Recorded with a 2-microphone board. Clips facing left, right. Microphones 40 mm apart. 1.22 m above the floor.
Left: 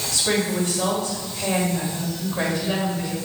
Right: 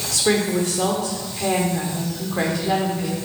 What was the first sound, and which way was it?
A woman speaking, 85° right.